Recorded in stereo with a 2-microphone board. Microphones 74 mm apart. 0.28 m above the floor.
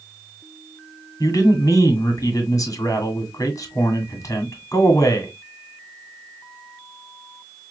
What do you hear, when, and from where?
1.2 s a man speaking: 45° left (ahead or behind), 1.8 m